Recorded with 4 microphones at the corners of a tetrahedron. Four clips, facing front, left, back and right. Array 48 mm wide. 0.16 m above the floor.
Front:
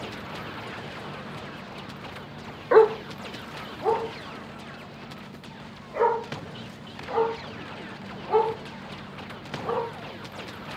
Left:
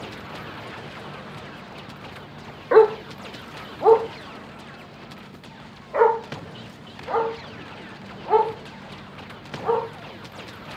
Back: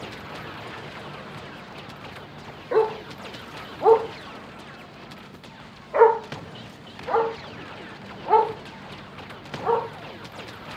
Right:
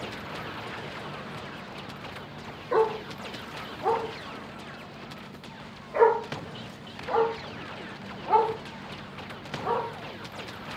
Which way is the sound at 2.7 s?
55° left.